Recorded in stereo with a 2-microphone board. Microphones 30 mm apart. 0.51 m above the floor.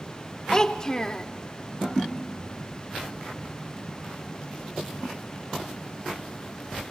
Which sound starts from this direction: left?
A child speaking, at 0.5 s.